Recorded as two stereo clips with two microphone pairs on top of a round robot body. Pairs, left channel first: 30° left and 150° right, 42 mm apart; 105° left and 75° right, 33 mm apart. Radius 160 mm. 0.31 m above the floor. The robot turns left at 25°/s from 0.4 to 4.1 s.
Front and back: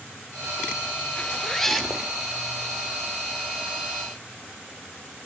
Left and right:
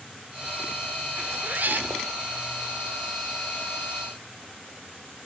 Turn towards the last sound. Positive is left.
turn(degrees=-110)